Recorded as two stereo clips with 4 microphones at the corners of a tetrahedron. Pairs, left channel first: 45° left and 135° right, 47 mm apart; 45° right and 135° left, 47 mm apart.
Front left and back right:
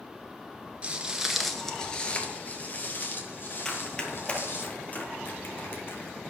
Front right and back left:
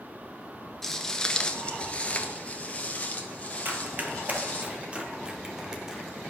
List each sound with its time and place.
0.8 s footsteps: 130° right, 1.2 m; by 4.7 s 15° left, 3.5 m
3.6 s running footsteps: 115° left, 1.8 m; by 6.2 s 55° left, 2 m